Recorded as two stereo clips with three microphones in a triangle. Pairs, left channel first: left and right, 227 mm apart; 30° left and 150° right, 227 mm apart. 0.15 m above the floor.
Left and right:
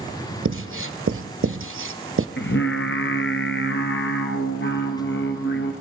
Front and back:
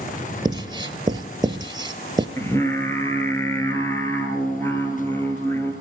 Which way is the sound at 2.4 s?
105° left.